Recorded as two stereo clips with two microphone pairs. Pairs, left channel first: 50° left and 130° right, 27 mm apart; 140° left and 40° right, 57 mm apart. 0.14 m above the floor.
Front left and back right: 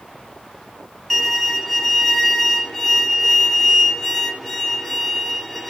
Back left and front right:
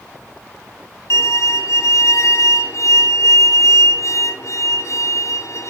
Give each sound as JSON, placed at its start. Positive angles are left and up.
{"t": 1.1, "sound": "a violin", "azimuth_deg": 130, "distance_m": 2.0}